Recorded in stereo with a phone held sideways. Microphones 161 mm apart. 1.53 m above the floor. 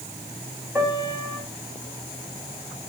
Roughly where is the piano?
Centre.